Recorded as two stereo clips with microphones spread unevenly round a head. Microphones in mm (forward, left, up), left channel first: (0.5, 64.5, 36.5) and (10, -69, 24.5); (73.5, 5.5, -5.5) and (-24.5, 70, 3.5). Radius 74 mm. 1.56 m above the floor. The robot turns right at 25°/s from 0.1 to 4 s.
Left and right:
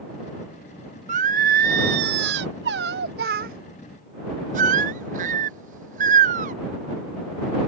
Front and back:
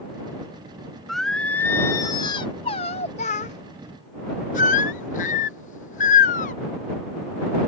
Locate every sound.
1.1 s singing: 125° right; by 6.5 s 50° right